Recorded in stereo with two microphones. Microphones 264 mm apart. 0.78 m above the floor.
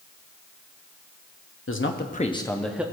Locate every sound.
1.7 s a man speaking: 55° left (ahead or behind), 0.9 m; by 2.8 s 5° right (ahead or behind), 1.0 m